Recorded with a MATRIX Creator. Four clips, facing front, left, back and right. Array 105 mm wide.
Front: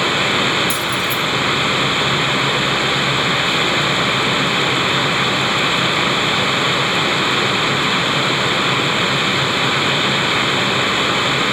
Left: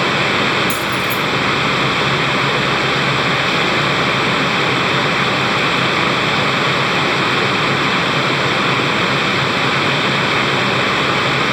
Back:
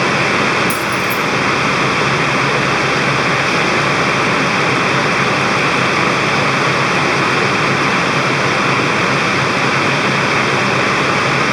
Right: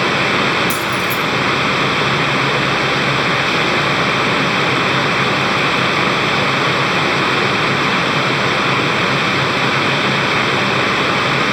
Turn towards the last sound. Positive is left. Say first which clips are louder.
# even, back 4 dB
turn(degrees=-135)